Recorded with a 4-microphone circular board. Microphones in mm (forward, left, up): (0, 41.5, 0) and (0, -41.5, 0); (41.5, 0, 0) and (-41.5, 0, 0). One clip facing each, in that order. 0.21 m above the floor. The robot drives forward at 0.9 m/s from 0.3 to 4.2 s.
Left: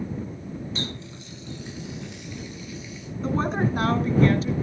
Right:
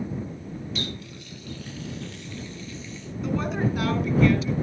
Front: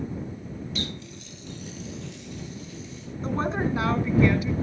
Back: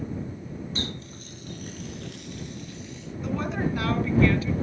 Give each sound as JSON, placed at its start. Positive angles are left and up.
{"t": 0.8, "sound": "a running tap", "azimuth_deg": 135, "distance_m": 1.3}
{"t": 3.2, "sound": "a woman speaking", "azimuth_deg": 45, "distance_m": 2.5}